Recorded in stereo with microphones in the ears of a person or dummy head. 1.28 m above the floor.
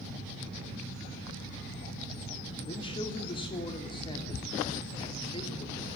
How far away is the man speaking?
About 3.5 m.